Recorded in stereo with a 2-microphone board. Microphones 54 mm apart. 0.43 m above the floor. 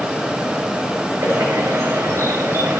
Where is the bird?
55° right (ahead or behind), 7 m.